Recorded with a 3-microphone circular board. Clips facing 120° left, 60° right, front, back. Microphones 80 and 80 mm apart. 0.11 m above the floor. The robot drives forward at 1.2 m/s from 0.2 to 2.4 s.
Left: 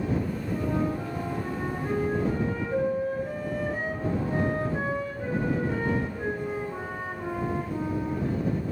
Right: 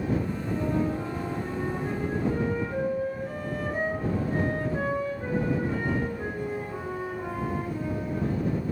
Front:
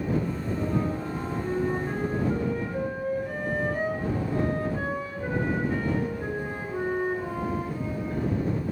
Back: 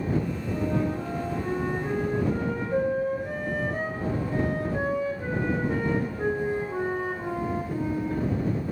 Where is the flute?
175° right, 4 m.